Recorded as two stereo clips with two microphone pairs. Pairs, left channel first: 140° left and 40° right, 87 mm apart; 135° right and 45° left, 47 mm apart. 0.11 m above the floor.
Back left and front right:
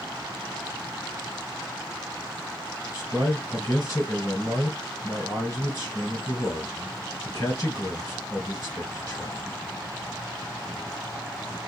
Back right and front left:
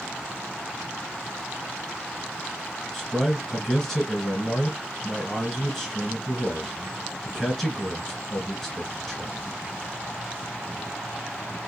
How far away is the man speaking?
About 1.7 m.